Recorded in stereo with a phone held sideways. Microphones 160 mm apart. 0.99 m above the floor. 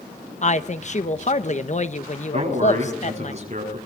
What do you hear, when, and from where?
0.4 s a woman speaking: 50° left (ahead or behind), 1.1 m
2.3 s a man speaking: 45° right (ahead or behind), 7.5 m